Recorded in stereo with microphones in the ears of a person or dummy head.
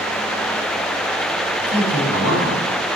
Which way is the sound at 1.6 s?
75° left (ahead or behind).